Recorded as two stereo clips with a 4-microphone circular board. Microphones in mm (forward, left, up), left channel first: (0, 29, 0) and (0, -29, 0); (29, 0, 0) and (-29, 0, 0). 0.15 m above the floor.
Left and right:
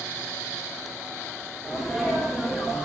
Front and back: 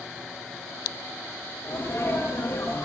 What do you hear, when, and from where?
1.6 s a sneeze: 10° right, 6 m